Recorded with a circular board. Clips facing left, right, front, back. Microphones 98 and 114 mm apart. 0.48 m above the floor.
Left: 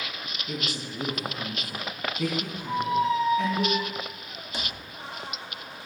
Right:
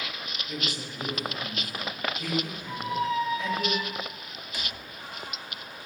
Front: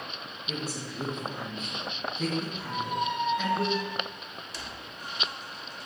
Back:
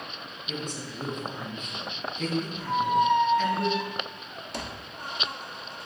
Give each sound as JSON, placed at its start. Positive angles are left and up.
{"t": 0.5, "sound": "a woman speaking", "azimuth_deg": 80, "distance_m": 3.5}
{"t": 2.7, "sound": "a squeak", "azimuth_deg": 150, "distance_m": 0.6}